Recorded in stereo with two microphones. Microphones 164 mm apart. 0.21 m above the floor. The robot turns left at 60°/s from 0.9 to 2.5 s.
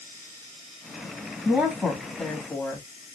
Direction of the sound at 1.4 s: 10° right (ahead or behind).